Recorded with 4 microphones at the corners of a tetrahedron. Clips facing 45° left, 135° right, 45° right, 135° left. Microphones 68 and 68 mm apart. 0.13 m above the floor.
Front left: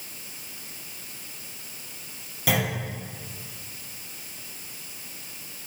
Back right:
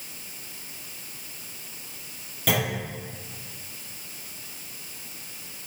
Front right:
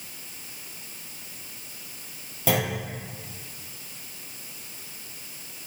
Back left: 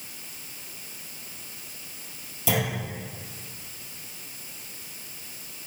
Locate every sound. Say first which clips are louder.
2.5 s a clunk: even, front right 2 dB; 35° right, 3 m